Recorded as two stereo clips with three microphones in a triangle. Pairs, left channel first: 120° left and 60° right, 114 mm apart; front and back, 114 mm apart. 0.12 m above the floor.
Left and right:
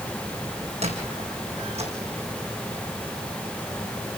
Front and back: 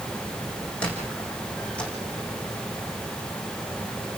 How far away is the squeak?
About 5.5 m.